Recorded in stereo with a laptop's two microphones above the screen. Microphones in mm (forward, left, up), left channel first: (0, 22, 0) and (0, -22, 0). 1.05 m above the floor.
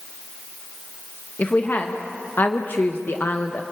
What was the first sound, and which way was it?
A woman speaking, 40° left (ahead or behind).